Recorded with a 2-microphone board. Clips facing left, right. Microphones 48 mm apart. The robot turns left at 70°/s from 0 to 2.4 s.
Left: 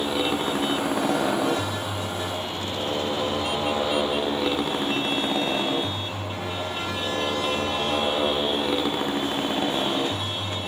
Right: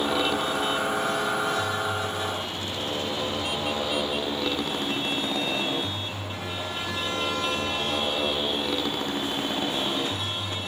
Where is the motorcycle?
175° right; by 10.7 s 15° left.